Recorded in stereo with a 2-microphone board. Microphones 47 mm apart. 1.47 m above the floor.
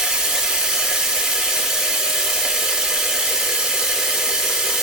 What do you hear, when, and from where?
0.0 s running water: 10° right (ahead or behind), 1.3 m